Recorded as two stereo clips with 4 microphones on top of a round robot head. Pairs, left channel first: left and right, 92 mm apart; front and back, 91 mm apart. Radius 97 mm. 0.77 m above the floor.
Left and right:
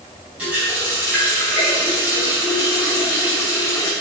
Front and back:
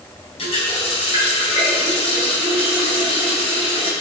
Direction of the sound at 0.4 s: 10° right.